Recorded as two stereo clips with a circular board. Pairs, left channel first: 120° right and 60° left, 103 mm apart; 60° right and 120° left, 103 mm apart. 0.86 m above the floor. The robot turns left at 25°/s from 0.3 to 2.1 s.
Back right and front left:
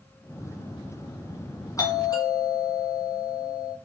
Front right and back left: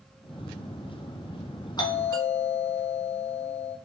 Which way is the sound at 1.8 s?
80° right.